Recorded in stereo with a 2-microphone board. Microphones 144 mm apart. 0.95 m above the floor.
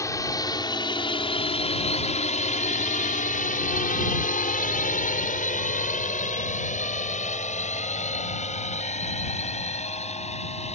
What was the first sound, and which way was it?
A drone, 20° left (ahead or behind).